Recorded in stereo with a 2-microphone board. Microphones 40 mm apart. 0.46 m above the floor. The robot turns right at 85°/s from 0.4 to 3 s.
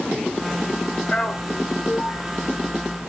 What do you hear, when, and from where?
1.1 s a man speaking: 20° left (ahead or behind), 1.3 m; by 2.2 s 45° left (ahead or behind), 1.3 m